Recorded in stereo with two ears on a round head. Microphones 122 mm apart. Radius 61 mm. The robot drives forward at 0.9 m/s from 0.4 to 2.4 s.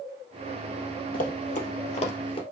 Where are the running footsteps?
65° left (ahead or behind), 3 m; by 2.4 s 45° left (ahead or behind), 1.9 m.